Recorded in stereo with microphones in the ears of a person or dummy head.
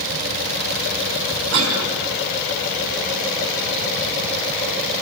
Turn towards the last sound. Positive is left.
turn(degrees=-85)